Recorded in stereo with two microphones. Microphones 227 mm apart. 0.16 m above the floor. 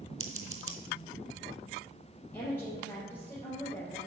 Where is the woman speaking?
10° left (ahead or behind), 3 m.